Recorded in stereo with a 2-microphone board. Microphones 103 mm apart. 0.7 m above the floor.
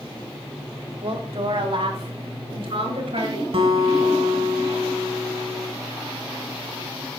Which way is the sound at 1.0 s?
60° right (ahead or behind).